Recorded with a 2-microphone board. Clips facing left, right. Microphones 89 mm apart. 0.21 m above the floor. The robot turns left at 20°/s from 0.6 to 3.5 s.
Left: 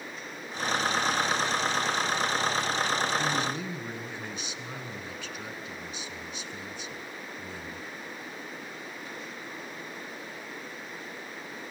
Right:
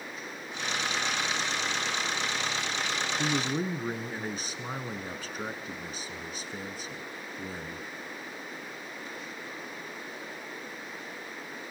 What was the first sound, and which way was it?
A man speaking, 35° right (ahead or behind).